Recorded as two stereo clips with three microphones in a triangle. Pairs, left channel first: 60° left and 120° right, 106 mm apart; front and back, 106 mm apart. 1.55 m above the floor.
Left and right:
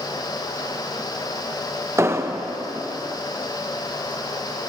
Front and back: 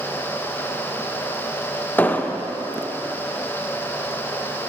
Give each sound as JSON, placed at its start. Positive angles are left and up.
{"t": 2.0, "sound": "an explosion", "azimuth_deg": -65, "distance_m": 0.8}